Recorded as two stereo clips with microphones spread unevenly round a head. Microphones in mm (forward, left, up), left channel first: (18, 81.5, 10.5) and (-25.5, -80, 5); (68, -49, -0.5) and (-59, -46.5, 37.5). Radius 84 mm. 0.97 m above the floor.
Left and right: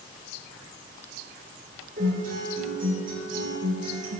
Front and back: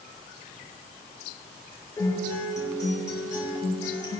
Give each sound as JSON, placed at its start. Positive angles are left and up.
{"t": 2.0, "sound": "a guitar", "azimuth_deg": -65, "distance_m": 6.0}